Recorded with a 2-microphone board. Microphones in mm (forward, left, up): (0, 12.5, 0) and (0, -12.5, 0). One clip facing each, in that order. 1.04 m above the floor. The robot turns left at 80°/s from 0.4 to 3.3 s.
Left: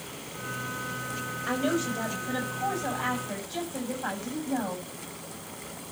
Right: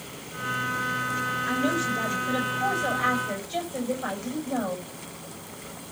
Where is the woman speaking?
40° left, 6.5 m; by 4.8 s 110° right, 6.5 m.